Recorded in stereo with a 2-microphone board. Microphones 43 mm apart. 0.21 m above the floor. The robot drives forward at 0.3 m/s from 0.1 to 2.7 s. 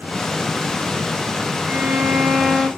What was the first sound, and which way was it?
A violin, 50° right (ahead or behind).